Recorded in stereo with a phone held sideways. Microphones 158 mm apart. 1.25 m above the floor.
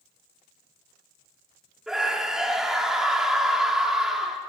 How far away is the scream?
About 3 m.